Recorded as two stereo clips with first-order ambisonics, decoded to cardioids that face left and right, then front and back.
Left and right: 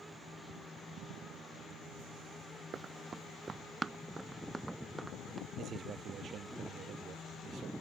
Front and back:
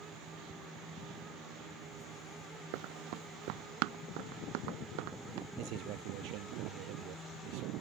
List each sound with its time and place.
2.7 s running footsteps: 160° right; by 5.5 s straight behind
5.6 s a man speaking: 150° right